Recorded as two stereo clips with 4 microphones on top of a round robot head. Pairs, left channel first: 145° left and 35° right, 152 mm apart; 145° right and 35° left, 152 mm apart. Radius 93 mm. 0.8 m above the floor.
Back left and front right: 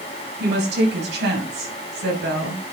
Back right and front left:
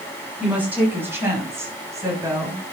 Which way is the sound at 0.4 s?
45° right.